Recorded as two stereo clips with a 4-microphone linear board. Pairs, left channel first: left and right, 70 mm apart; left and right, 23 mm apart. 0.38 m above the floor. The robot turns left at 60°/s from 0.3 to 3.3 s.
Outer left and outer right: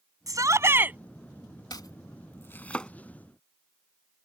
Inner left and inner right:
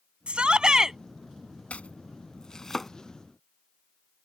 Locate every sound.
0.3 s a shout: 115° right; by 1.0 s 155° right
1.7 s chopping: 80° left; by 2.9 s 10° left (ahead or behind)